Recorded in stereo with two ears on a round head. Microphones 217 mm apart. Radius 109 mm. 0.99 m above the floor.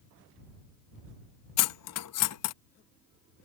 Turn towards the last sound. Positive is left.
turn(degrees=70)  # may be behind; listen again after turning